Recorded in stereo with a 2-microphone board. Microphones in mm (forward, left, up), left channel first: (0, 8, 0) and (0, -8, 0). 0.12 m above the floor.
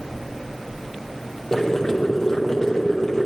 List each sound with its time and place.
1.5 s boiling: 35° left (ahead or behind), 2.5 m